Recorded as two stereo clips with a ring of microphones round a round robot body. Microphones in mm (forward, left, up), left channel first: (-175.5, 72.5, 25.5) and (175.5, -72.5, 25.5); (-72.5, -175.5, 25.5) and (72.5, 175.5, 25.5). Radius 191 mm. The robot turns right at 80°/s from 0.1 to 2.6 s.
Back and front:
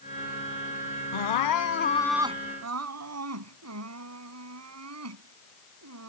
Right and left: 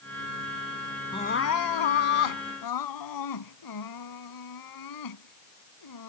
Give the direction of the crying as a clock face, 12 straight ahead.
6 o'clock.